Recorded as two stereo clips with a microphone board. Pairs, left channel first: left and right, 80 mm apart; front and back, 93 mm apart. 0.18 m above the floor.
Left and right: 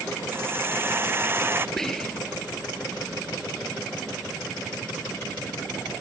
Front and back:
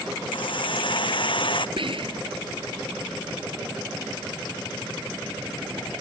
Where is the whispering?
175° left.